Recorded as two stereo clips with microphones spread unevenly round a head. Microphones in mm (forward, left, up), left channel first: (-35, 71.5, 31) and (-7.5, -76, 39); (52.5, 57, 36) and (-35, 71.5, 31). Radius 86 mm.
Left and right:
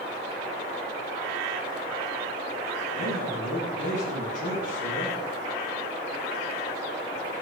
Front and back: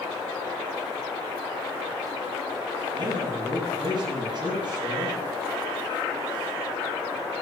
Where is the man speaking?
135° left, 9.5 m.